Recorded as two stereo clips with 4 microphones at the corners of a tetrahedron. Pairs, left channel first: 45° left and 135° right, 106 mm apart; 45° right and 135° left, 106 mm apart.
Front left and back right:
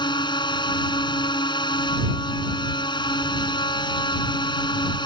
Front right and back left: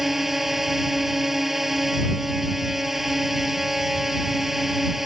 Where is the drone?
50° left.